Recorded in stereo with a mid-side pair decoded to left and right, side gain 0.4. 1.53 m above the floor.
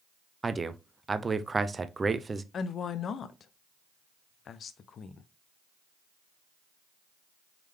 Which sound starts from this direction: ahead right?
A man speaking, at 0.4 s.